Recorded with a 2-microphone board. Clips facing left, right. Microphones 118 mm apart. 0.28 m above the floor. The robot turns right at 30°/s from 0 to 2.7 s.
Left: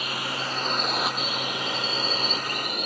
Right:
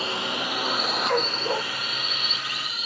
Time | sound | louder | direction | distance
0.0 | a drone | right 2 dB | 30° right | ?
1.1 | a dog barking | right 6 dB | 90° right | ?